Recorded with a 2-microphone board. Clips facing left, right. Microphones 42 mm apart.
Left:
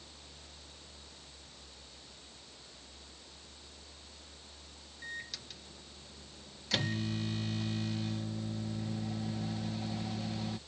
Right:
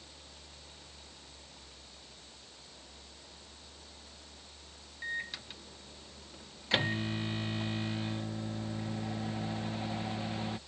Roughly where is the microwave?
Right.